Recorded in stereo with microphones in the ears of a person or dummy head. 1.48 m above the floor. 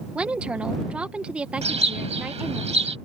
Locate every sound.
0.1 s a woman speaking: 5° right (ahead or behind)
1.6 s a bird: 30° right (ahead or behind)